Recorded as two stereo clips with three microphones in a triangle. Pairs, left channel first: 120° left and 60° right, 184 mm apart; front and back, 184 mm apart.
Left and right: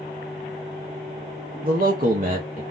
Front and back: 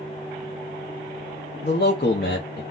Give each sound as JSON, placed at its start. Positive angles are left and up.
{"t": 1.6, "sound": "a man speaking", "azimuth_deg": -25, "distance_m": 0.6}